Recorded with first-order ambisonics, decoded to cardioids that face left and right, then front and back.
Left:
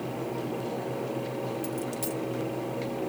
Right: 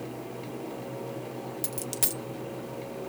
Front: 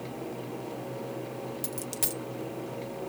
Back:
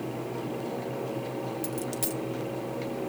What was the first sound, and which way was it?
A dropped coin, 70° right.